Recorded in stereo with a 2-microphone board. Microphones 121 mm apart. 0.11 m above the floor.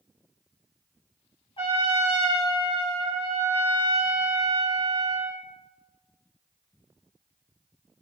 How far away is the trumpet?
About 2.5 m.